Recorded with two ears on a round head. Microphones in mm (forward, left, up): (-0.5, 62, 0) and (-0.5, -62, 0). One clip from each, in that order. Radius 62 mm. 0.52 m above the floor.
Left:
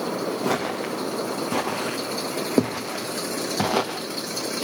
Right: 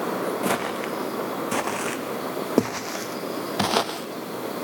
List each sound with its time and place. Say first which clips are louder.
0.4 s footsteps: even; 60° right (ahead or behind), 3 m; by 4.6 s 30° right (ahead or behind), 0.9 m